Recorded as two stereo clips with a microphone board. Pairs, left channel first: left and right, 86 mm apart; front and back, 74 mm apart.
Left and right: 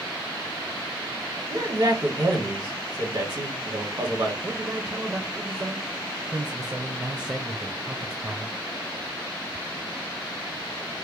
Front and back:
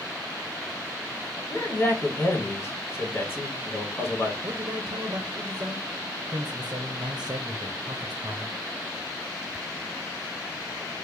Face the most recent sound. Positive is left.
turn(degrees=-150)